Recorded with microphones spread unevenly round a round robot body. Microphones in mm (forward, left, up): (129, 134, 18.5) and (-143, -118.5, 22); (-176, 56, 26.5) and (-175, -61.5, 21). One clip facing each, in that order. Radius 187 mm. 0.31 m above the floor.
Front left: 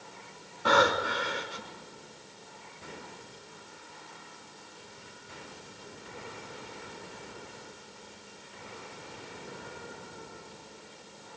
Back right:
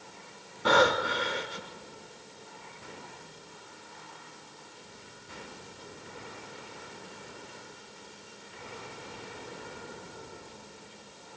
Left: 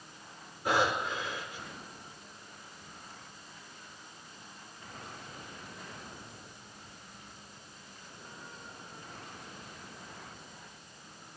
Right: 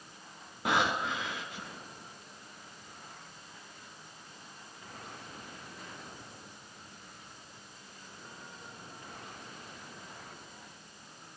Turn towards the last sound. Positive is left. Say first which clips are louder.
# back right 2 dB, left 1 dB
turn(degrees=-75)